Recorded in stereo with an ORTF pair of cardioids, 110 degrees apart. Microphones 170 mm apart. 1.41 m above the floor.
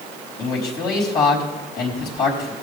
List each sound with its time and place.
0.4 s a man speaking: 70° left, 4 m